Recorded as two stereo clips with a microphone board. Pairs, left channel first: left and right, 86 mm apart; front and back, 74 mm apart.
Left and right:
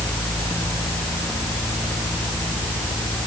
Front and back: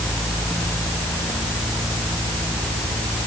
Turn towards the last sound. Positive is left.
No sound to turn to.